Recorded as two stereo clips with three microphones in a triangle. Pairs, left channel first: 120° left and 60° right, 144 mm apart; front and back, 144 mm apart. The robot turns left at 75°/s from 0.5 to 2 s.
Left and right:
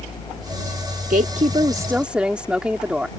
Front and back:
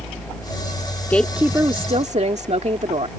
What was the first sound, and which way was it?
A woman speaking, 75° right.